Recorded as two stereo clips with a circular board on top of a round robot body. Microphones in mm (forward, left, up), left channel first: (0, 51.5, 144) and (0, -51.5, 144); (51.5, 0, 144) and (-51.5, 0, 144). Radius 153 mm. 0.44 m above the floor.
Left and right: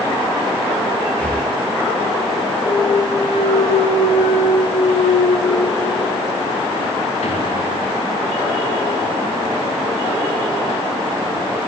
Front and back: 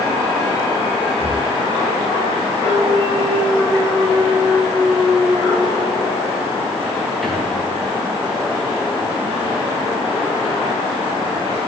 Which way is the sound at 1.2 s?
165° left.